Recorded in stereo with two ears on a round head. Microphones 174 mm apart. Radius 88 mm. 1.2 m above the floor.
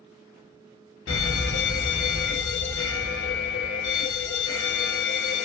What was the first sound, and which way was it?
An alarm, 70° left (ahead or behind).